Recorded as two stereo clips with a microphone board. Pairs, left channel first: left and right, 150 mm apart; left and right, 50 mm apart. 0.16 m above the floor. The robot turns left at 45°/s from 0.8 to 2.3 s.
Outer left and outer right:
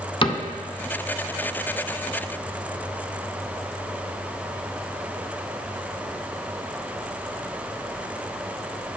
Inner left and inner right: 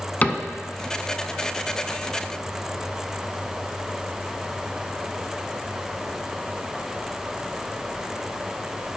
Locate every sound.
0.2 s a cupboard door: 35° left (ahead or behind), 0.6 m